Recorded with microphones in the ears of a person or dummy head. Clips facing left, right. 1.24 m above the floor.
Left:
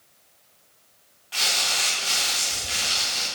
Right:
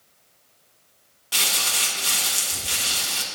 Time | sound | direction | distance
1.3 | crumpling | 50° right (ahead or behind) | 1.7 m